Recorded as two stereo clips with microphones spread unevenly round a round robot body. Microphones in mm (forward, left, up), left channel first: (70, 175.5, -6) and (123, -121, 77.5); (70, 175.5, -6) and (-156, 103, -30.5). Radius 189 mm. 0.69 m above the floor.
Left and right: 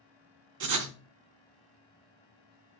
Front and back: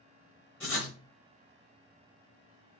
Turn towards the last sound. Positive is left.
turn(degrees=-65)